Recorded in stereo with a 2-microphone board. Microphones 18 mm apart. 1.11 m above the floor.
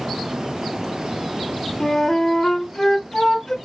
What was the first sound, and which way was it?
A flute, 30° left (ahead or behind).